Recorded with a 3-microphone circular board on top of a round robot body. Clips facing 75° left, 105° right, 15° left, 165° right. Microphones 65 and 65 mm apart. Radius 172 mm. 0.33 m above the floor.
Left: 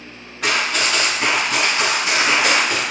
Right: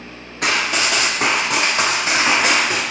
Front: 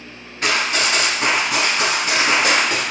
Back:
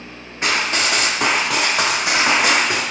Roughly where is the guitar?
I don't hear a guitar.